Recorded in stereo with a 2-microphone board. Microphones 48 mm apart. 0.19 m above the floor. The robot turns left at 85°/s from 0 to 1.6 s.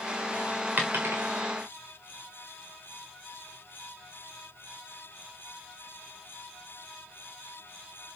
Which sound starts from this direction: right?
A dropped coin, at 0.8 s.